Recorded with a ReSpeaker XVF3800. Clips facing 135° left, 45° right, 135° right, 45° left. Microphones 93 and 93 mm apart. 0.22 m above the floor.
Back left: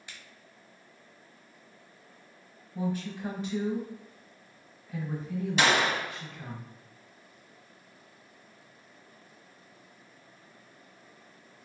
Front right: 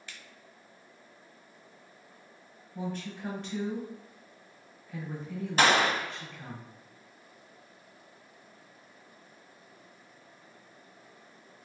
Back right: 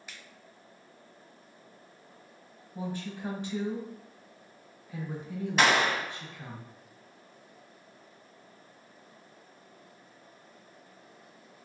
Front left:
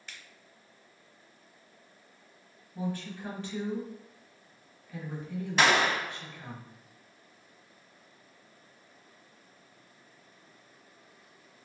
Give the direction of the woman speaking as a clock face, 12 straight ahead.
5 o'clock.